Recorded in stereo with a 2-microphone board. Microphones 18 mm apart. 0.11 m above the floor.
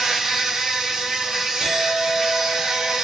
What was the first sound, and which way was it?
An insect, 30° right (ahead or behind).